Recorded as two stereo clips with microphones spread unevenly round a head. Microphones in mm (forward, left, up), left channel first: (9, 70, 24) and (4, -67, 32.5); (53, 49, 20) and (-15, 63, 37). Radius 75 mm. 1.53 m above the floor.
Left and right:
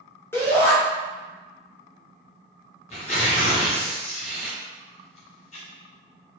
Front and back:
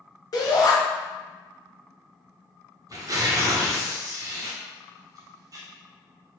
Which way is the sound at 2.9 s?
135° left.